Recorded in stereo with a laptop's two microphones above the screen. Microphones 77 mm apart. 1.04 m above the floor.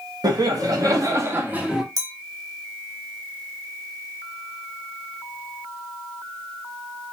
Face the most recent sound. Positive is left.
turn(degrees=-45)  # may be behind; listen again after turning